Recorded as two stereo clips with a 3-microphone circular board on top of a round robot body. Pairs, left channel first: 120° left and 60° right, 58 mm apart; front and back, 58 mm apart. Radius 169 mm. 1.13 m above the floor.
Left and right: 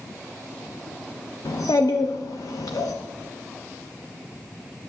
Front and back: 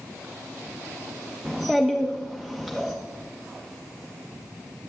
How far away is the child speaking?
About 0.8 m.